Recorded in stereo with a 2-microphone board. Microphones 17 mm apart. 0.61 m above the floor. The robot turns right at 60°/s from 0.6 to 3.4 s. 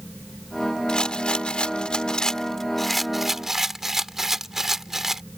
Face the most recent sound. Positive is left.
turn(degrees=-155)